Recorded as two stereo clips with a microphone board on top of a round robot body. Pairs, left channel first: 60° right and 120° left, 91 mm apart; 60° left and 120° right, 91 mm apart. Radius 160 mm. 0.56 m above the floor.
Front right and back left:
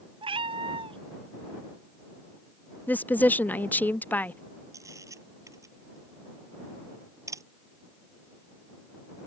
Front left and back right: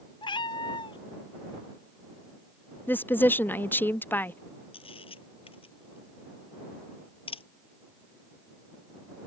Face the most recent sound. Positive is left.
turn(degrees=65)